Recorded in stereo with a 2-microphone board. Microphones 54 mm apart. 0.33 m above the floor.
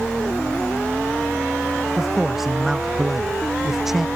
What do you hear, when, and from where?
2.0 s a man speaking: 5° right (ahead or behind)